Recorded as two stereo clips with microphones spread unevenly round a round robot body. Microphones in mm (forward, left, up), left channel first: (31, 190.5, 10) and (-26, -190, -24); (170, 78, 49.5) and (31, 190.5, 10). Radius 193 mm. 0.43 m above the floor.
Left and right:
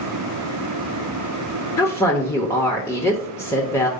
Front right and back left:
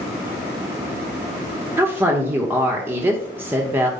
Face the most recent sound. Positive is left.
turn(degrees=165)